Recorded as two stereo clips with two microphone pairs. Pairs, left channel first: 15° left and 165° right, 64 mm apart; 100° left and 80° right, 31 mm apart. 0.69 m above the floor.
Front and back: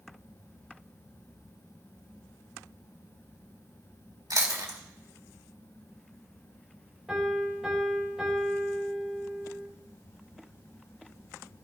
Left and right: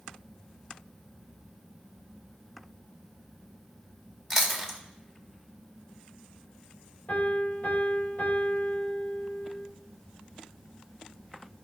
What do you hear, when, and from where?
4.3 s chewing: 175° right, 1.9 m
7.1 s a piano: 110° left, 3 m